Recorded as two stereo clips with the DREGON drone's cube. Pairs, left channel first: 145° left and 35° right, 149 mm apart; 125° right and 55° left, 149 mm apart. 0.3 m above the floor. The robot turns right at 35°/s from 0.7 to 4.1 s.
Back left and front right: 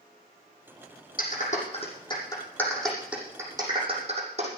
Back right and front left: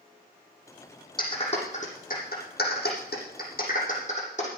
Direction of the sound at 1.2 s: 175° left.